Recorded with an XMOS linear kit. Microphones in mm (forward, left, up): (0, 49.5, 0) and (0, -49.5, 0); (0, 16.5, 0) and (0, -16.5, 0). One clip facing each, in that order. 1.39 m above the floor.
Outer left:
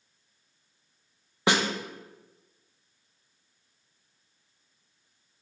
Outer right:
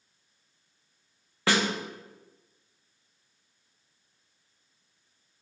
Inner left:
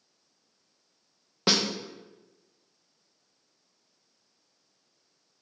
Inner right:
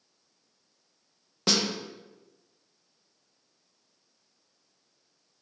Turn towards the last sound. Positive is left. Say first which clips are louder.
# outer left 1 dB, inner left 1 dB
turn(degrees=20)  # may be behind; listen again after turning